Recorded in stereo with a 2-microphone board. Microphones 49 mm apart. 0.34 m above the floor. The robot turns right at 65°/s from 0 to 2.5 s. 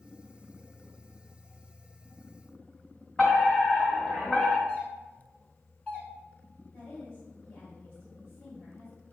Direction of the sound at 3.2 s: 25° left (ahead or behind).